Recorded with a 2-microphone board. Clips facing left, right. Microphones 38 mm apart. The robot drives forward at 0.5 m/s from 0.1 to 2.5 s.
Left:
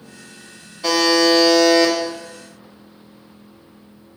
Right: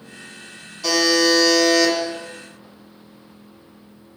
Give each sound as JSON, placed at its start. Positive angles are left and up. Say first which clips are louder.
{"t": 0.8, "sound": "a buzzer", "louder": "left 2 dB", "side_deg": 25, "distance_m": 0.7}